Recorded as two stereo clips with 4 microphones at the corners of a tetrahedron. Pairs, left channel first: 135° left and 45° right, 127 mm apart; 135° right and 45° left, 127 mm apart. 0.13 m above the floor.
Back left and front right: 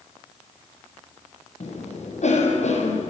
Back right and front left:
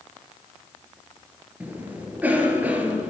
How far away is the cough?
About 3.5 m.